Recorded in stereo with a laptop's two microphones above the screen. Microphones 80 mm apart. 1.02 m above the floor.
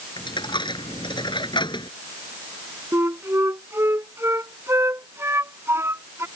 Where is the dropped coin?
80° left.